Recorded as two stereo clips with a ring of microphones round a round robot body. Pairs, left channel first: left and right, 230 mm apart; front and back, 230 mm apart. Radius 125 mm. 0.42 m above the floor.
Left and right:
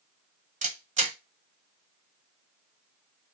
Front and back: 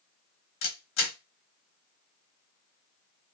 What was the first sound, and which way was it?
A camera shutter, 35° right.